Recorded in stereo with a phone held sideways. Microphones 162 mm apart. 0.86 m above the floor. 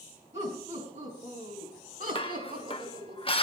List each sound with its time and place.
0.3 s laughter: 45° right (ahead or behind), 6.5 m; by 3.1 s 75° right (ahead or behind), 5 m
2.1 s dishes clattering: 35° left (ahead or behind), 0.7 m